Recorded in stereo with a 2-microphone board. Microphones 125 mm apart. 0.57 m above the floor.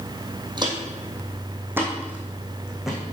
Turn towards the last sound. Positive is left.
turn(degrees=0)  # may be behind; listen again after turning